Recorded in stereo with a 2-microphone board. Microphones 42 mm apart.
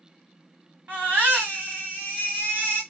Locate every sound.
0.9 s a baby crying: 40° right (ahead or behind), 2.5 m